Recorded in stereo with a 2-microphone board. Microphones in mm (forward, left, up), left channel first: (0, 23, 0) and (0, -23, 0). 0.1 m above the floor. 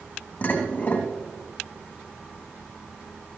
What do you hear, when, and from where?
0.4 s dishes clattering: 50° left (ahead or behind), 3.5 m